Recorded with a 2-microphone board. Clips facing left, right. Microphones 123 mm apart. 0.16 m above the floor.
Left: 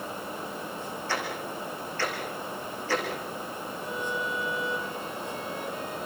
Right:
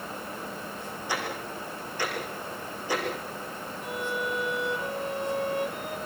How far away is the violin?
About 4 m.